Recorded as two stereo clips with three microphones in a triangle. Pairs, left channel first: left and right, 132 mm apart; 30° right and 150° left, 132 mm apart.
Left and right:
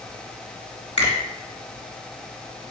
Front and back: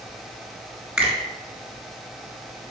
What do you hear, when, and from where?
1.0 s a finger snap: 70° left, 2.5 m